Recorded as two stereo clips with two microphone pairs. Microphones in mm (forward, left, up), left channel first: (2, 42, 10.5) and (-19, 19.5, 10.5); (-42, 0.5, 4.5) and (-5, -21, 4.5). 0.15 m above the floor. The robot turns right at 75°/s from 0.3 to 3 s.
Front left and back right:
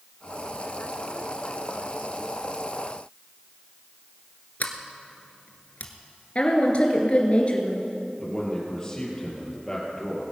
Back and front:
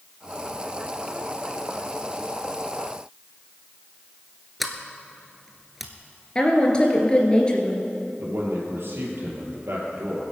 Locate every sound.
4.6 s a sliding door: 60° left, 1.3 m
6.3 s a woman speaking: 90° left, 2.5 m
8.2 s a man speaking: 15° right, 4.5 m